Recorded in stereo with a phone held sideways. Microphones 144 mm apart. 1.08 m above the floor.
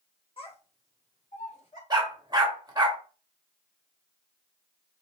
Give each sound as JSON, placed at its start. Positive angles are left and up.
{"t": 0.4, "sound": "a child speaking", "side_deg": 40, "distance_m": 1.3}
{"t": 1.9, "sound": "a dog barking", "side_deg": -30, "distance_m": 0.9}